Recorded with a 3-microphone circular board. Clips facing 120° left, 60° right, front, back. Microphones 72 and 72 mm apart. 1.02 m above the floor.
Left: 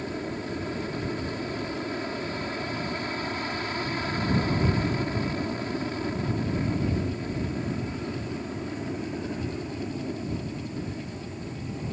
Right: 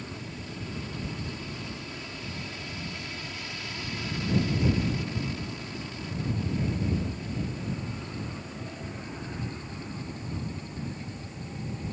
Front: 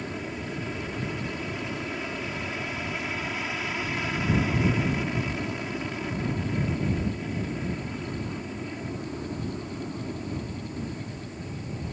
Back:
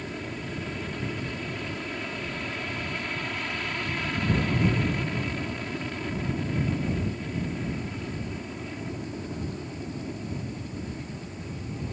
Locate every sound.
0.0 s an aircraft: 85° left